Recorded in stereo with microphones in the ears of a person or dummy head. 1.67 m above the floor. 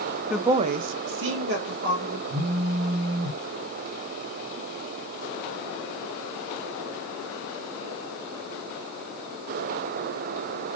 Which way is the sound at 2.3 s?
65° right (ahead or behind).